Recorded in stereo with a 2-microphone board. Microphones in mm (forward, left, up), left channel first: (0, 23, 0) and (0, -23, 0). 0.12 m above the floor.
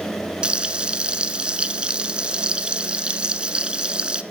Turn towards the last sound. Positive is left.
turn(degrees=-20)  # may be behind; listen again after turning